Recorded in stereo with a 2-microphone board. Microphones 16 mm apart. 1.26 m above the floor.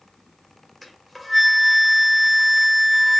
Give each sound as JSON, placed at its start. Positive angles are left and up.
{"t": 0.8, "sound": "a flute", "side_deg": -5, "distance_m": 1.4}